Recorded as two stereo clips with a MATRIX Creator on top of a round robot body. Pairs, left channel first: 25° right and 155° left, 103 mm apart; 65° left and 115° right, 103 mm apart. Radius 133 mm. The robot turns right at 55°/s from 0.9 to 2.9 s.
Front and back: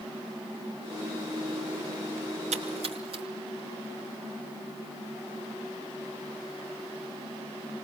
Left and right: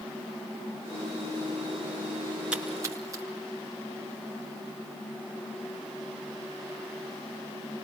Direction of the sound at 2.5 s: 165° left.